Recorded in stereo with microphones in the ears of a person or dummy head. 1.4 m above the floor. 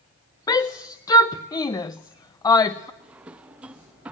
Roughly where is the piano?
I don't hear a piano.